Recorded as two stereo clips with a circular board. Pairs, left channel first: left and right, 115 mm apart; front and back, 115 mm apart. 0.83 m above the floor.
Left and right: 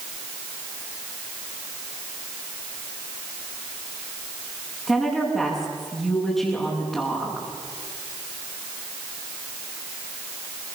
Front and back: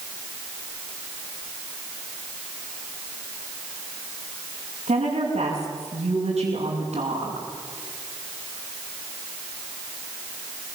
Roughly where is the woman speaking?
Behind.